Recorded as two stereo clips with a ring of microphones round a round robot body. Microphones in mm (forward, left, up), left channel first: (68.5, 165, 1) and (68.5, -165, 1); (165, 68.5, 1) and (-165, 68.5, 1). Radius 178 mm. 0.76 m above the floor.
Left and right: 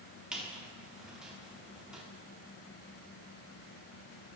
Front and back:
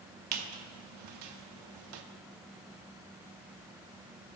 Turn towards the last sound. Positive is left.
turn(degrees=180)